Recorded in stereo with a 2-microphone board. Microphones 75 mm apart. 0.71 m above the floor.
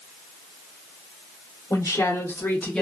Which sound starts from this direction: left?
A woman speaking, at 1.7 s.